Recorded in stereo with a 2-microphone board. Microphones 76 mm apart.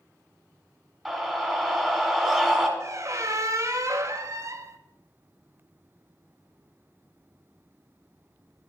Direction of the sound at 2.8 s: 40° right (ahead or behind).